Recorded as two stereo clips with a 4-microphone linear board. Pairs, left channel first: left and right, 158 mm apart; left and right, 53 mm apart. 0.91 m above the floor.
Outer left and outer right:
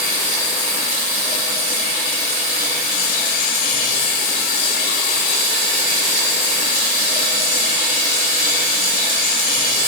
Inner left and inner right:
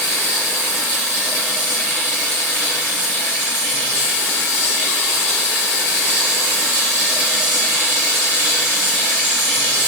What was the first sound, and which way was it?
Running water, 65° left (ahead or behind).